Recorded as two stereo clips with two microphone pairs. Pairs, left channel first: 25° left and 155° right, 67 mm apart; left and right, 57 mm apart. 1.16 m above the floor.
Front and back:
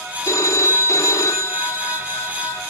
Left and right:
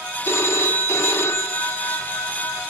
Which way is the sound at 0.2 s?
50° left.